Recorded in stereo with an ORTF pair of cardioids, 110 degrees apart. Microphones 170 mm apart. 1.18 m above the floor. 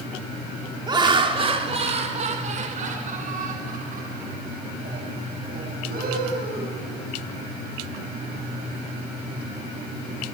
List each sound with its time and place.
0.9 s laughter: 25° right, 3.5 m; by 7.0 s 65° right, 10.5 m